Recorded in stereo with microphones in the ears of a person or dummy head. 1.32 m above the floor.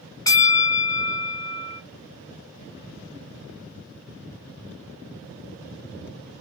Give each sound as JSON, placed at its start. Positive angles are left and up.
{"t": 0.3, "sound": "a bell", "side_deg": 15, "distance_m": 0.5}